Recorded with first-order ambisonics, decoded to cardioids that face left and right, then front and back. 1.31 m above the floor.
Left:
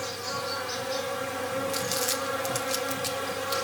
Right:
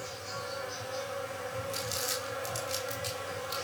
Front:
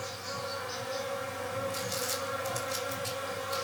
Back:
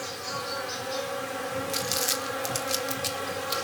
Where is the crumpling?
160° left, 2 m.